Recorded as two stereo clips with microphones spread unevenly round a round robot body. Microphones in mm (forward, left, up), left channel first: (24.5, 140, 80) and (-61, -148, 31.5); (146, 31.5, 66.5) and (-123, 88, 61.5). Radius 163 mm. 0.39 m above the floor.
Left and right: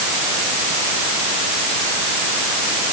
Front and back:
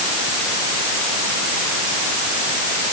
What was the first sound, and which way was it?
Only background noise.